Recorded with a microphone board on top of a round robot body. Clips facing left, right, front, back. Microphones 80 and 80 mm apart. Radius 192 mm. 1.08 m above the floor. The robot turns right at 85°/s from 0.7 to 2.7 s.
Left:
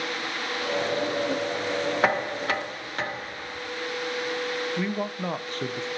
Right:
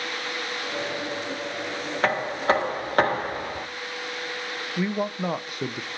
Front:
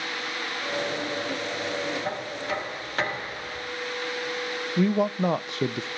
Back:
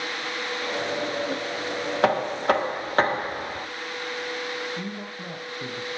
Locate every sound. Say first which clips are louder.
2.0 s knocking: right 5 dB, back 9 dB; 175° left, 1.0 m; by 3.7 s 130° right, 1.0 m
4.8 s a man speaking: right 2 dB, front 12 dB; 10° right, 0.7 m